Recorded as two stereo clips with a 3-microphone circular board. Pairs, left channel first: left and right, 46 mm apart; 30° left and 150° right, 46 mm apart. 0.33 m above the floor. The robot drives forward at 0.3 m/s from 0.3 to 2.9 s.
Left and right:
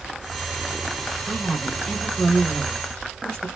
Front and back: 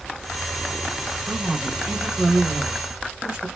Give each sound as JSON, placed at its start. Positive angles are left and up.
{"t": 1.3, "sound": "a woman speaking", "azimuth_deg": 120, "distance_m": 0.9}